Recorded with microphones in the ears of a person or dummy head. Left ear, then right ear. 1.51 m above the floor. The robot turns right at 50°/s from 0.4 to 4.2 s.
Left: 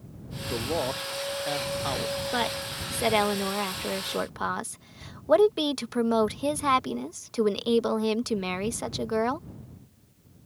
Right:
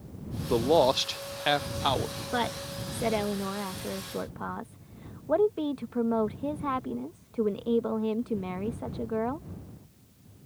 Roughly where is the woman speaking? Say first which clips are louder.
Left 2 dB; ahead.